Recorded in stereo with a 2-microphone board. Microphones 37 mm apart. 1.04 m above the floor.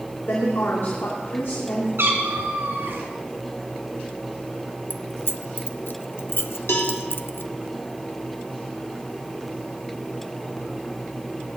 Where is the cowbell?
80° left, 2.5 m.